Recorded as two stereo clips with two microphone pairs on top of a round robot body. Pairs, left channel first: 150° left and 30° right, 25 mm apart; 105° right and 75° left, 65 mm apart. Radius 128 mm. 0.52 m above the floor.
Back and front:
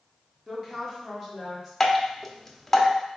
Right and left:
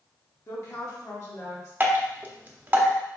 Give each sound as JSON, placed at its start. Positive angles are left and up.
{"t": 0.5, "sound": "a woman speaking", "azimuth_deg": -100, "distance_m": 1.2}
{"t": 1.8, "sound": "dripping", "azimuth_deg": 85, "distance_m": 0.9}